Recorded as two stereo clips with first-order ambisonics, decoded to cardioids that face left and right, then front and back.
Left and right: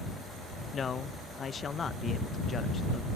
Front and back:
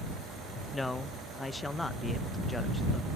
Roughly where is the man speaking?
Left.